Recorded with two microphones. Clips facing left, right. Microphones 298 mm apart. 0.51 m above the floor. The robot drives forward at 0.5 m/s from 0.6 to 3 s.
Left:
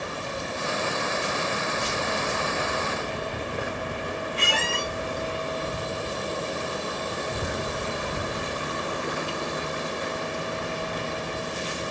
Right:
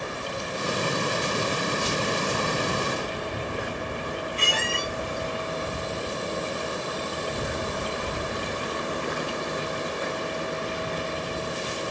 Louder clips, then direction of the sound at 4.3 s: Left 1 dB; 70° left (ahead or behind).